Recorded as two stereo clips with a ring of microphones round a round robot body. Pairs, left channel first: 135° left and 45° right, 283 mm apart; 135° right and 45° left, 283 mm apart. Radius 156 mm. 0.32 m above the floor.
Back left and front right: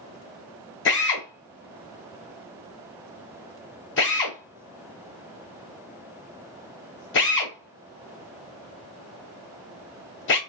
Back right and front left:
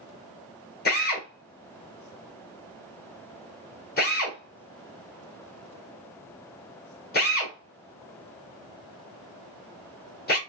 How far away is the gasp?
No gasp in this recording.